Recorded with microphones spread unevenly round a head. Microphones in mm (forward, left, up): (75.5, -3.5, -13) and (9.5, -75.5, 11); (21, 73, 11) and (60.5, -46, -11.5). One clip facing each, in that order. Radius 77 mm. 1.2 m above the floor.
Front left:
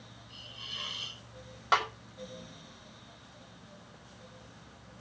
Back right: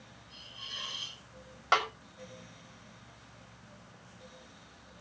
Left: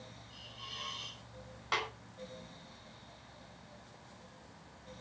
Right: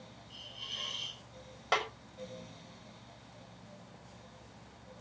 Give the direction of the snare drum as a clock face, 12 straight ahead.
1 o'clock.